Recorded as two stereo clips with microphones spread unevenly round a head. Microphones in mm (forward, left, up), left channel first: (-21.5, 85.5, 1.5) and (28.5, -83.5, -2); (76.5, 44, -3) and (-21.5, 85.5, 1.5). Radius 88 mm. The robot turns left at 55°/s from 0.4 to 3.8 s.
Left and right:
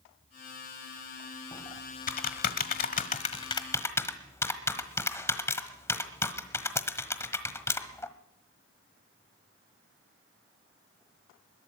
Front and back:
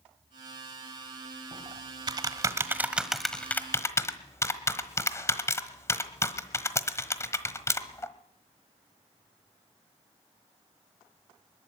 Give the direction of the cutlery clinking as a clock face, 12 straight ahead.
I don't hear cutlery clinking.